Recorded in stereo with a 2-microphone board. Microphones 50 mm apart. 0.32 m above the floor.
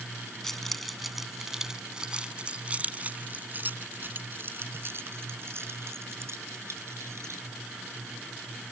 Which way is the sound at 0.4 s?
5° left (ahead or behind).